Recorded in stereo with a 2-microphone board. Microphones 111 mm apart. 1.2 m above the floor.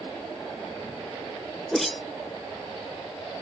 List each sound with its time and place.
1.7 s a whoosh: centre (ahead or behind)